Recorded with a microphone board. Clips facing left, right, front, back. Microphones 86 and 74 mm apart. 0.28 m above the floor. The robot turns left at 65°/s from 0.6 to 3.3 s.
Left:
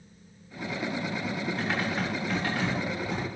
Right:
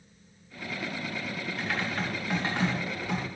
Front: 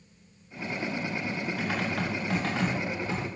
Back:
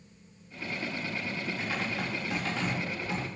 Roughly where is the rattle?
I don't hear a rattle.